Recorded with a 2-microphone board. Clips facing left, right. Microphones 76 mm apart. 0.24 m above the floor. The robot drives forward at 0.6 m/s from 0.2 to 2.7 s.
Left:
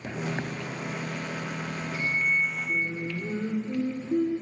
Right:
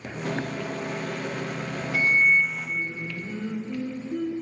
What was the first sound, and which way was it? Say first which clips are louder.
A microwave: right 6 dB; 55° right (ahead or behind).